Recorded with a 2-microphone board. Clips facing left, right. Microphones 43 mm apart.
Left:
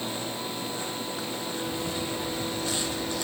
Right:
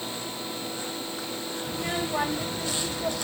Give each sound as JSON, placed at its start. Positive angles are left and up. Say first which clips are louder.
{"t": 1.7, "sound": "a child speaking", "louder": "right 6 dB", "side_deg": -45}